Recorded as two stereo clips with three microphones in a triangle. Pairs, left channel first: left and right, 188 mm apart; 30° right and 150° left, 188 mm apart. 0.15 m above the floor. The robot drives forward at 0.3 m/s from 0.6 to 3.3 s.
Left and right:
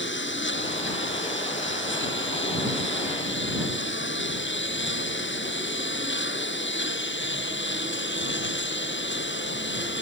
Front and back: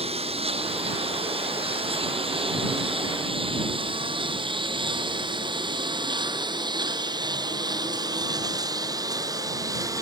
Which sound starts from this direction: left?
A lawn mower, at 0.0 s.